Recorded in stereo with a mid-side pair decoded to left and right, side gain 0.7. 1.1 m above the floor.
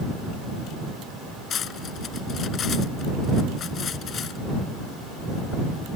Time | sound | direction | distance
1.5 | cutlery clinking | 40° left | ?